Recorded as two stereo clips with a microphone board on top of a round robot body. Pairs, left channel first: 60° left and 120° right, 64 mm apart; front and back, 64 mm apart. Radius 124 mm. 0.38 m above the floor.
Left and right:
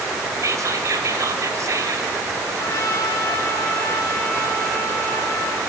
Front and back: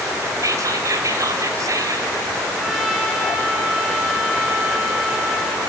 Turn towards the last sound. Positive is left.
turn(degrees=95)